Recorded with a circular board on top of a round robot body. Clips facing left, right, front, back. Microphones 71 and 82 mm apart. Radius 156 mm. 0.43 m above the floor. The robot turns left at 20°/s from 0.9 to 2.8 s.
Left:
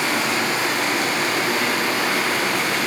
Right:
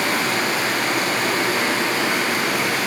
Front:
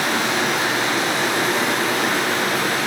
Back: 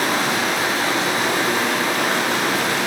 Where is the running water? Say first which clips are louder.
Even, even; 135° right, 1.6 m; by 2.9 s 170° right, 1.6 m.